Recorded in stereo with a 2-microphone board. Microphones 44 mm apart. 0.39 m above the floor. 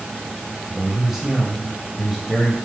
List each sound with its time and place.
0.7 s a man speaking: 10° right (ahead or behind), 1.9 m